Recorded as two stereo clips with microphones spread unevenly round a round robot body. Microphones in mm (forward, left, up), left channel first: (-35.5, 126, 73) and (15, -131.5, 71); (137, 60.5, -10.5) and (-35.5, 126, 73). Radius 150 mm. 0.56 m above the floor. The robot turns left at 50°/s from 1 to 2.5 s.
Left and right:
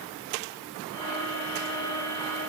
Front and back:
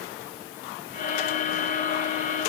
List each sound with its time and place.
Only background noise.